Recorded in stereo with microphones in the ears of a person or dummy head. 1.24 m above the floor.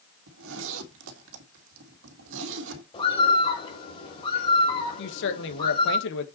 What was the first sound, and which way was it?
A zipper, 80° right.